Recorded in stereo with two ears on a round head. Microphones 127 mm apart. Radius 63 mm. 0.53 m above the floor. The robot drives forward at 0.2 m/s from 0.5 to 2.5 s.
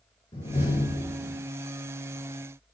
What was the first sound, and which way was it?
A door slam, 40° left (ahead or behind).